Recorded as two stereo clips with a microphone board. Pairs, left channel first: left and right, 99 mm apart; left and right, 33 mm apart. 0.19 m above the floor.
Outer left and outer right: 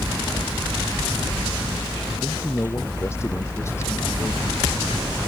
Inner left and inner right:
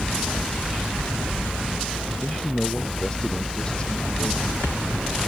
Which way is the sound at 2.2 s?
30° left (ahead or behind).